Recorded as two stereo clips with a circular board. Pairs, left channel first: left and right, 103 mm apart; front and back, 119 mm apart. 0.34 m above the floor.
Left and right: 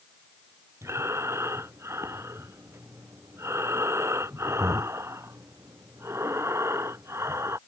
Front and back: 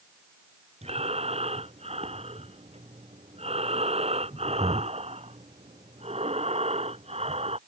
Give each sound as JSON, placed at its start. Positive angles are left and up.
{"t": 0.8, "sound": "breathing", "azimuth_deg": -155}